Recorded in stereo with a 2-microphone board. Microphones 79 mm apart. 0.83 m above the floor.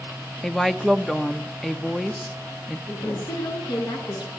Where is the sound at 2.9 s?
70° left (ahead or behind), 10 m.